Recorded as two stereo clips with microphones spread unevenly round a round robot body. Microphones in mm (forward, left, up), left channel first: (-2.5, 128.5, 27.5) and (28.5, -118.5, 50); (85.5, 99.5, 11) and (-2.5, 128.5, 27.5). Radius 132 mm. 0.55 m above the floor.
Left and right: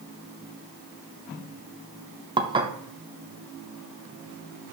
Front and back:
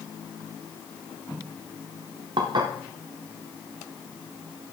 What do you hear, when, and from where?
2.4 s dishes clattering: 155° right, 0.8 m